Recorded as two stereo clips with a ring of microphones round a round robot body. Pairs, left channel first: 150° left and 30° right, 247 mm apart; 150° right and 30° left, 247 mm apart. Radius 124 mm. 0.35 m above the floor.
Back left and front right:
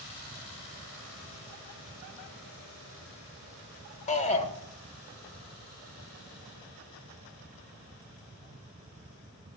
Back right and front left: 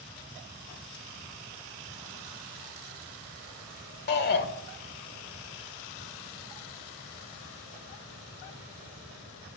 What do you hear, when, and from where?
4.1 s a shout: 165° right, 1.3 m